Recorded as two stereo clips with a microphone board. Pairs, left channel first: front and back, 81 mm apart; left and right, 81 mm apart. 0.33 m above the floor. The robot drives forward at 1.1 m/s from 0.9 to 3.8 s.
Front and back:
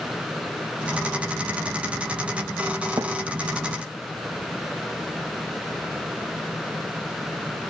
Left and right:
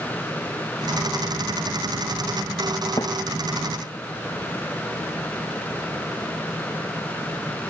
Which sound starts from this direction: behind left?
A thud, at 3.0 s.